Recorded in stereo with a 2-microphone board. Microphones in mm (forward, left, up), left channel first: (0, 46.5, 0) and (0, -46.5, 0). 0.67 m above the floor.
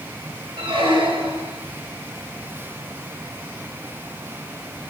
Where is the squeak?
80° right, 3 m.